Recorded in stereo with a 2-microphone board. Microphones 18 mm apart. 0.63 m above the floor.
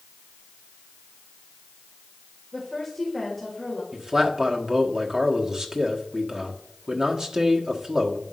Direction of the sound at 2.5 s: 5° right (ahead or behind).